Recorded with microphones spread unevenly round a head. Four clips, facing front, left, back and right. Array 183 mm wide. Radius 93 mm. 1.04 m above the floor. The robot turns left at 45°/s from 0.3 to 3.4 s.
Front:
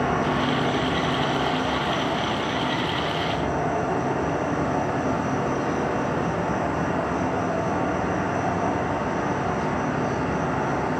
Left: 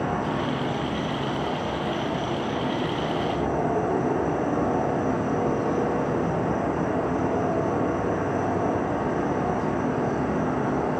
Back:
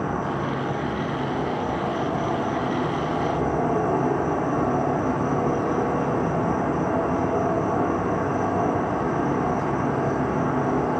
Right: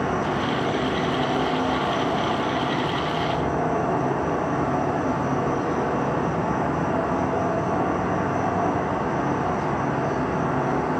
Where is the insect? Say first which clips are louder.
Right 2 dB, front 3 dB; 40° right, 0.7 m; by 11.0 s straight behind, 0.7 m.